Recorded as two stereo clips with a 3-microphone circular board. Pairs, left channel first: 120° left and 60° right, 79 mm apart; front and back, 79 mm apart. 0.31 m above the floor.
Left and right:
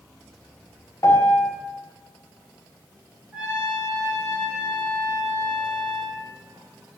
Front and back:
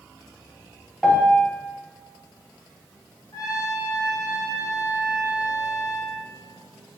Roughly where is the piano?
Left.